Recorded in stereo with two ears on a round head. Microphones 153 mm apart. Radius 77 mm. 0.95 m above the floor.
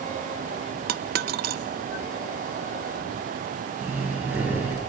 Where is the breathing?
10° right (ahead or behind), 4.5 m.